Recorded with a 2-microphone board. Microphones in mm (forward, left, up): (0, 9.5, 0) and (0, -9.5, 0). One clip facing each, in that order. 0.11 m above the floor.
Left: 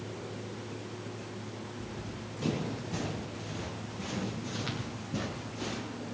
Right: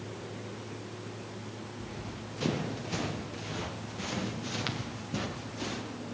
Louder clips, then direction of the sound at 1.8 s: Even; 65° right (ahead or behind).